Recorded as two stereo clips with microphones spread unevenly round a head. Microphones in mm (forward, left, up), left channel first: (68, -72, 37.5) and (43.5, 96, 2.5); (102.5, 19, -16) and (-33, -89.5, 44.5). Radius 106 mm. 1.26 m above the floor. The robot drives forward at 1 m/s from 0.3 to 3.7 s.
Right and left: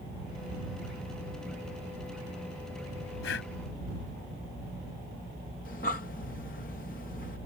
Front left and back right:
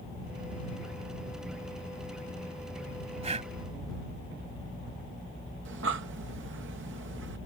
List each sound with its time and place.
3.2 s breathing: 95° right
5.7 s breathing: 135° right